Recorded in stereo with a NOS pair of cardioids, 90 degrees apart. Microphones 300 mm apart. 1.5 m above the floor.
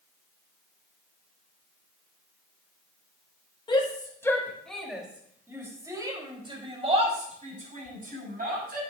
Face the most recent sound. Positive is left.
turn(degrees=-30)